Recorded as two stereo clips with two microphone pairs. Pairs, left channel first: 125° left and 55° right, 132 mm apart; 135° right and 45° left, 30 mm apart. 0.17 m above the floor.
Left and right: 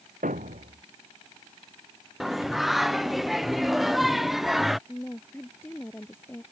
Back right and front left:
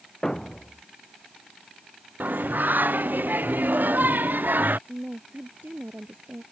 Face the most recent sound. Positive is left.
turn(degrees=50)